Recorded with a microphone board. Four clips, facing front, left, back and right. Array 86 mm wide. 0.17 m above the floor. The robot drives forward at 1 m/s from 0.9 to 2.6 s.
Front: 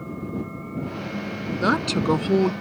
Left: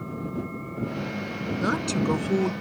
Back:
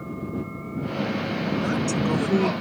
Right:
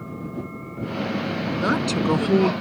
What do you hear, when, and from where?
1.6 s a woman speaking: 20° right; by 2.5 s 60° right